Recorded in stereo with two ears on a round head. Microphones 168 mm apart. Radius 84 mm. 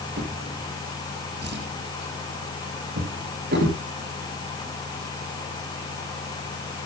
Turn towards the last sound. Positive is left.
turn(degrees=-55)  # may be behind; listen again after turning